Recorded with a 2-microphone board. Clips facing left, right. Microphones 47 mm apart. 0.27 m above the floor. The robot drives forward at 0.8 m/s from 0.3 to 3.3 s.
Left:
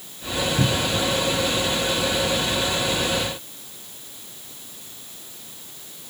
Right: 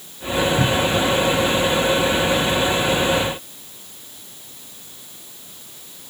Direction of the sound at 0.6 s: 5° left (ahead or behind).